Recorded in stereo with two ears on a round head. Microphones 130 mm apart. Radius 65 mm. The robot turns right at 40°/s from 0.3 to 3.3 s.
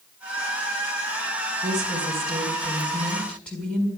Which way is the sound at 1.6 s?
60° right.